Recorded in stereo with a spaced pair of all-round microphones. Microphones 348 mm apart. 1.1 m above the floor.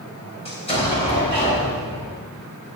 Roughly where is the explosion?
Centre.